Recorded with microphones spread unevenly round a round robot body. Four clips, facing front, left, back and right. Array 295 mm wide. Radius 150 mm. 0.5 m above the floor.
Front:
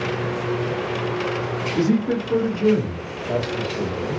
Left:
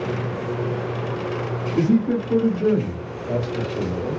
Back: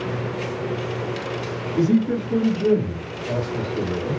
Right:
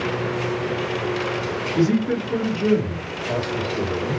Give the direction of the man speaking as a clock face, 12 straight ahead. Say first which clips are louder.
Left 1 dB, back 1 dB; 12 o'clock.